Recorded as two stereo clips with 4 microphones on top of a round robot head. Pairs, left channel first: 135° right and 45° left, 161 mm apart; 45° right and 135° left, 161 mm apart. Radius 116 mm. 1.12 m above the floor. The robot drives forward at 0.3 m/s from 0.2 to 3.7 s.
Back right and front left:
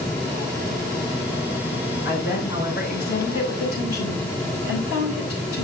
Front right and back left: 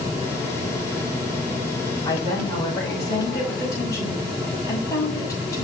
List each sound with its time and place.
2.0 s a woman speaking: 115° right, 6 m; by 5.6 s 120° right, 6 m